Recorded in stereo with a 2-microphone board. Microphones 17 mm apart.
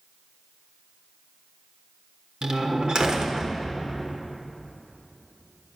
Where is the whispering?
I don't hear whispering.